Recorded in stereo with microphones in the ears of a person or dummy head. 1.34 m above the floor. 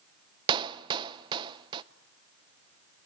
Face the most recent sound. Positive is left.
turn(degrees=-25)  # may be behind; listen again after turning